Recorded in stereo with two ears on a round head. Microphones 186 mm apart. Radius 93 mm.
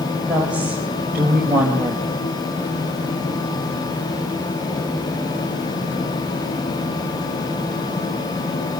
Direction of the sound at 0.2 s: 5° right (ahead or behind).